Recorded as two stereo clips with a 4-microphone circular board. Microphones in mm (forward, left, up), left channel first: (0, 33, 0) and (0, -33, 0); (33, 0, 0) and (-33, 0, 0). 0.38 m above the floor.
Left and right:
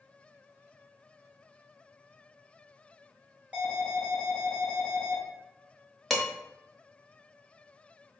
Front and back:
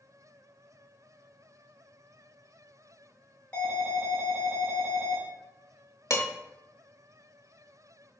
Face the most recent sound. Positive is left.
turn(degrees=0)